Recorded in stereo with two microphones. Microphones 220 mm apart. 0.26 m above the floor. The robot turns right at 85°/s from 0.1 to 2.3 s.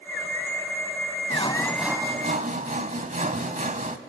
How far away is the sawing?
About 0.9 m.